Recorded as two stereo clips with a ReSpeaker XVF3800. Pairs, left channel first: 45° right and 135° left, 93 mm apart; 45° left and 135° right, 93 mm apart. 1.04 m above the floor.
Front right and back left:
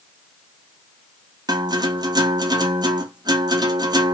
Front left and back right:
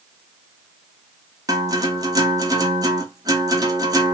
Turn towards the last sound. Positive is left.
turn(degrees=180)